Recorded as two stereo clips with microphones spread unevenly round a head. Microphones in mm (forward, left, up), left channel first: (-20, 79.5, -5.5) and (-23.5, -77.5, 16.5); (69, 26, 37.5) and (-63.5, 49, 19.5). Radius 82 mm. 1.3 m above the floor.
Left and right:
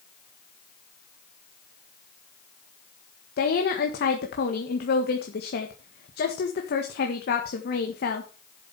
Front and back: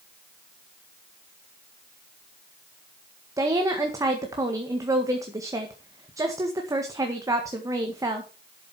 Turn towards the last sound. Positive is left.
turn(degrees=105)